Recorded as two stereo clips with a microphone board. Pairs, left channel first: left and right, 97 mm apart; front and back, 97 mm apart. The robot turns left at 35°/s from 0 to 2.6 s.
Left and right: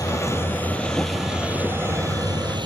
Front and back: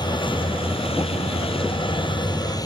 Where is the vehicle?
40° left; by 2.7 s 50° right.